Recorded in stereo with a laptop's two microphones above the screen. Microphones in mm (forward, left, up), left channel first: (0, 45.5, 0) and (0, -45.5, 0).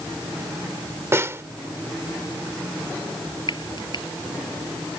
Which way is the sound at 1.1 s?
30° right (ahead or behind).